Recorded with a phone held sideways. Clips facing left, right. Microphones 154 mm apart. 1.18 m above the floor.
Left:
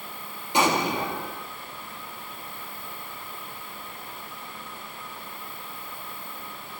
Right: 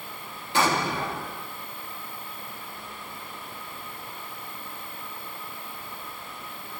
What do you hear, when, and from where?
0.5 s an explosion: 15° left (ahead or behind), 1.9 m